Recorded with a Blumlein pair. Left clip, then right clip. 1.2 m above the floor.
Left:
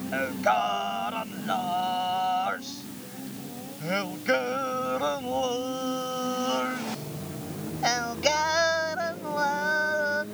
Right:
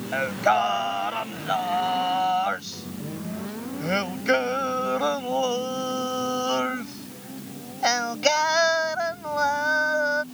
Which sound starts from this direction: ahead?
Singing, at 0.1 s.